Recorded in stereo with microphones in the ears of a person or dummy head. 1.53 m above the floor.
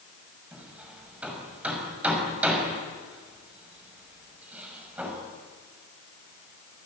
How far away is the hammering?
About 6 m.